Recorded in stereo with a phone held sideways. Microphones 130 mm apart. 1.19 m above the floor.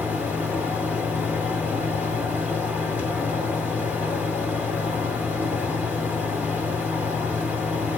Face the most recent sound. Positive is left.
turn(degrees=-15)  # may be behind; listen again after turning